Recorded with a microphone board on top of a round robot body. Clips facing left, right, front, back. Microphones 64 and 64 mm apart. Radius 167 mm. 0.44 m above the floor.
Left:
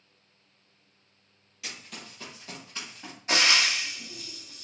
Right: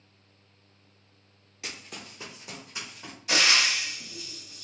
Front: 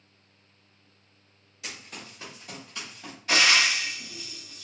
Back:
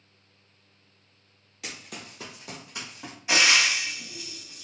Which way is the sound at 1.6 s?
145° right.